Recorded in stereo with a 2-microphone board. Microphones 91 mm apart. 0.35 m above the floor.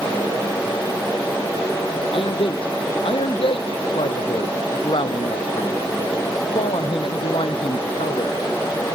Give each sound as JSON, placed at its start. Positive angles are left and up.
{"t": 2.1, "sound": "a man speaking", "side_deg": 80}